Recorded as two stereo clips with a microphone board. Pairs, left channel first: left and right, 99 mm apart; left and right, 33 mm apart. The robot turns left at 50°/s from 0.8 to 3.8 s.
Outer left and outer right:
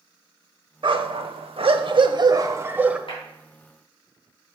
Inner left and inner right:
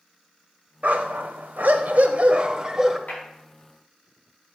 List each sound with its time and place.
0.8 s a dog barking: 60° right, 0.7 m; by 3.0 s 170° right, 0.7 m
3.1 s a clap: 65° left (ahead or behind), 4 m; by 3.2 s 70° left (ahead or behind), 4 m